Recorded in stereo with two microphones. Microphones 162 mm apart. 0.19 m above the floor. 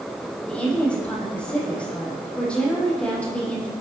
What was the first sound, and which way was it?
A woman speaking, 5° left (ahead or behind).